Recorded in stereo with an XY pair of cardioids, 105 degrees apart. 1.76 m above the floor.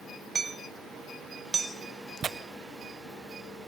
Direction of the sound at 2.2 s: 50° right.